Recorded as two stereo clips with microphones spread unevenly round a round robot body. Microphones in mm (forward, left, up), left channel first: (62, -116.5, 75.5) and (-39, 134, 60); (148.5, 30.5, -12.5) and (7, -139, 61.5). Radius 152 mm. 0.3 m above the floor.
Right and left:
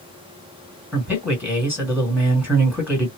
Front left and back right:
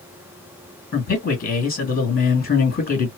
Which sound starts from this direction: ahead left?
A man speaking, at 0.9 s.